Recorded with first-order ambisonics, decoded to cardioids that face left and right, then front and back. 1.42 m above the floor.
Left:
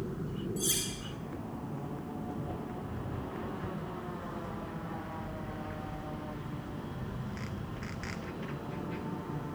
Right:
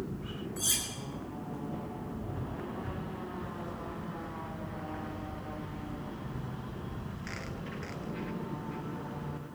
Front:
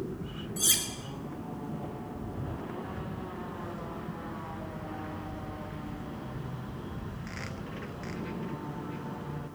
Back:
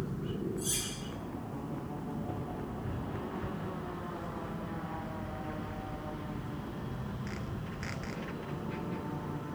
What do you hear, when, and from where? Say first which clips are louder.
0.6 s cutlery clinking: right 1 dB, front 11 dB; 5° right, 4.5 m